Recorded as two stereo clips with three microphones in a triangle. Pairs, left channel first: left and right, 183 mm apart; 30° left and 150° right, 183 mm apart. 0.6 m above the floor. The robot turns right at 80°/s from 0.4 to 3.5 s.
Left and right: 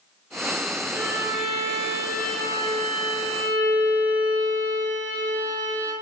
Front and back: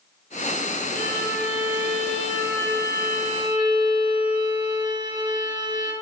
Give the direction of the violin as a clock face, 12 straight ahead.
10 o'clock.